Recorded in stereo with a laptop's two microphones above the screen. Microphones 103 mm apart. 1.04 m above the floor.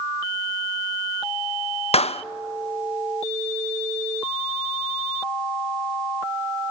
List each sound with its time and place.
1.9 s a clap: 80° left, 0.5 m